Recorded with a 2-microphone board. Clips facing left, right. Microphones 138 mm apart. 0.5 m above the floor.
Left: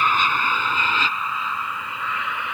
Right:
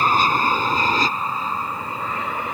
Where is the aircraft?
35° right (ahead or behind); by 2.5 s 40° right (ahead or behind).